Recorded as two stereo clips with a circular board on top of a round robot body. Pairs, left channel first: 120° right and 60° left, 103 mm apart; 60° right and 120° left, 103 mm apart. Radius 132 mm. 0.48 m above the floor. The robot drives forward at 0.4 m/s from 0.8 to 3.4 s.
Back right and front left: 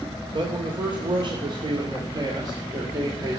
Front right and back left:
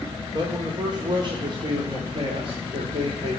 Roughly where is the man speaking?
Left.